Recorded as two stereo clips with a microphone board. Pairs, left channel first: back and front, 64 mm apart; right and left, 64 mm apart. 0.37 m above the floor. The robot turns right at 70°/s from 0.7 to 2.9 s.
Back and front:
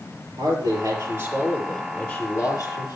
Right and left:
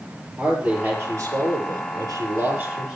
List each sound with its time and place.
0.4 s a man speaking: 15° left, 6.5 m; by 3.0 s 170° left, 6.5 m